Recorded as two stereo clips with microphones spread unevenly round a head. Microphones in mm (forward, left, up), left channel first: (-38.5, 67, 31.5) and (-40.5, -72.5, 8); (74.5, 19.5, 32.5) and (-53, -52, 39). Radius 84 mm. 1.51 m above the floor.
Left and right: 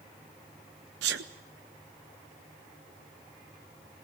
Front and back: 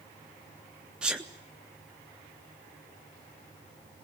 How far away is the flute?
I don't hear a flute.